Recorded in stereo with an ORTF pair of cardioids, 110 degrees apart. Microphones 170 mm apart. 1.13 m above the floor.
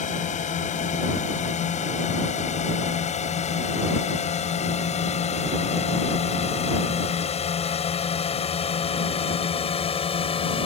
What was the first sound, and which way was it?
A drone, 45° left.